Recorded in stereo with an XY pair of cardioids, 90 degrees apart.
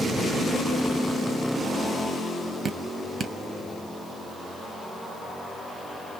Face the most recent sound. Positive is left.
turn(degrees=-50)